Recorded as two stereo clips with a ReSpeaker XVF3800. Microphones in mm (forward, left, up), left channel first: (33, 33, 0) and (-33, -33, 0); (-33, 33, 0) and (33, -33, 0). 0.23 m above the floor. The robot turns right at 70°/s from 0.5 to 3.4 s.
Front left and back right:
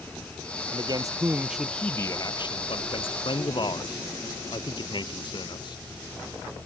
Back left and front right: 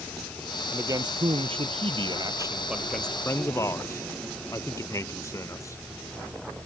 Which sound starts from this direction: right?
A man speaking, at 0.7 s.